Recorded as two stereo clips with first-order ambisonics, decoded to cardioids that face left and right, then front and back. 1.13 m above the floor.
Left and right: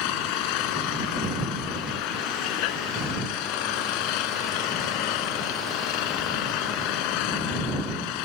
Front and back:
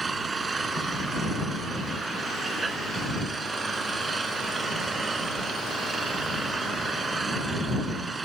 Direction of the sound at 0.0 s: 105° left.